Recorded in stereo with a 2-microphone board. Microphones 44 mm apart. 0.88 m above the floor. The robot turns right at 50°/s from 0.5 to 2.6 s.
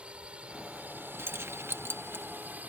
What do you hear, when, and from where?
0.0 s a drone: 25° right (ahead or behind); by 2.7 s 40° right (ahead or behind)
1.2 s keys jangling: 70° right (ahead or behind); by 2.2 s 45° right (ahead or behind)